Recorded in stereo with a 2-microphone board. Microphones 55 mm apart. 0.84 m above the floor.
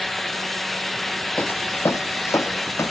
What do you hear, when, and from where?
1.4 s footsteps: 35° left (ahead or behind), 1.4 m; by 2.9 s 60° left (ahead or behind), 2.5 m